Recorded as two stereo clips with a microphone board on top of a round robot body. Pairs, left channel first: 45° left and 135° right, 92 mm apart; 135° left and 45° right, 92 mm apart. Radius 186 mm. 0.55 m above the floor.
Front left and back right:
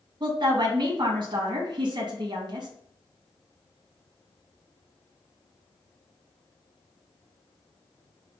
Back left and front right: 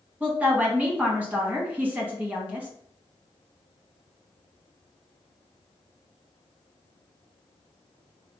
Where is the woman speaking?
115° right, 1.2 m.